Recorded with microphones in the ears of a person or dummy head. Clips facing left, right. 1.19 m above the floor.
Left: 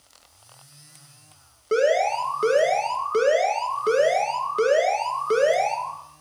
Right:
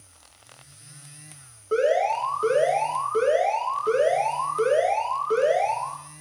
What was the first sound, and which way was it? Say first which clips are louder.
An alarm: left 1 dB; 40° left (ahead or behind).